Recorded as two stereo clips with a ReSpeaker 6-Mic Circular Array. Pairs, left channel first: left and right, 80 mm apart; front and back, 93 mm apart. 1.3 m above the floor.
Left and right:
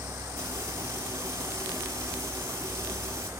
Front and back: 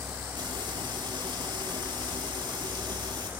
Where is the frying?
140° right, 7 m.